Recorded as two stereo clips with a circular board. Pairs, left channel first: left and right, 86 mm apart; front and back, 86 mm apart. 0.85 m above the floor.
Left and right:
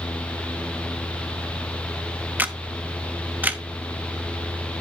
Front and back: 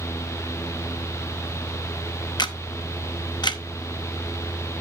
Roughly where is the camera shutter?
Ahead.